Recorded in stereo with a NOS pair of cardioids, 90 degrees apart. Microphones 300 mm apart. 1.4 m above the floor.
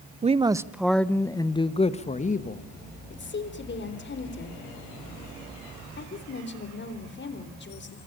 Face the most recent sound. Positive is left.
turn(degrees=40)